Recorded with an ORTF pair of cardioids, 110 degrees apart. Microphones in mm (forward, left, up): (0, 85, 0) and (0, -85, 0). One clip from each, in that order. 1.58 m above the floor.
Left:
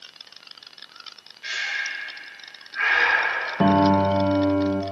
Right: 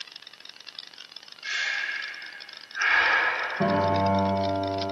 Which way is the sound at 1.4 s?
70° left.